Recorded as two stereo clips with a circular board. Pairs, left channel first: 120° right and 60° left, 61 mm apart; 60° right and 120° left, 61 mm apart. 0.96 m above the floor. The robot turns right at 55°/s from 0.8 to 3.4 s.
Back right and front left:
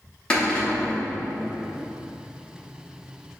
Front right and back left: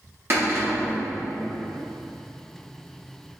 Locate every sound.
0.3 s a cupboard door: 170° left, 0.9 m; by 1.0 s straight behind, 0.9 m